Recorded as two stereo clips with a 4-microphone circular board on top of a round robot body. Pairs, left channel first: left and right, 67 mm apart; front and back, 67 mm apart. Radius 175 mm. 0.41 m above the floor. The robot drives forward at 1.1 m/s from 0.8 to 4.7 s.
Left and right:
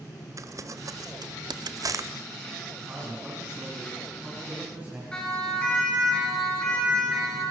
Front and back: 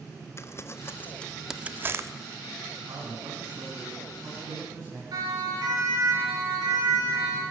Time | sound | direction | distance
0.4 | crumpling | 50° right | 1.1 m
2.9 | a man speaking | 155° right | 5 m
5.1 | a siren | 165° left | 8.5 m